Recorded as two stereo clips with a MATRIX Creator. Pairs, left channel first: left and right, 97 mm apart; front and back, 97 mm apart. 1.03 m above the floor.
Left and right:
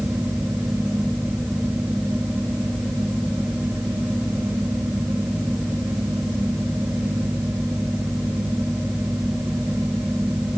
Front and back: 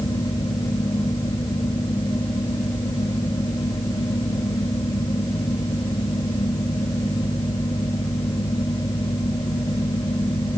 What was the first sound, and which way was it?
Only background noise.